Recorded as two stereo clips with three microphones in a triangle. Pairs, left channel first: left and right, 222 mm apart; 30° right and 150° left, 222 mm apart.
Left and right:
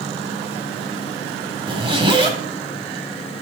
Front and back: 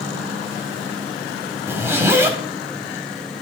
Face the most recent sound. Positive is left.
turn(degrees=-135)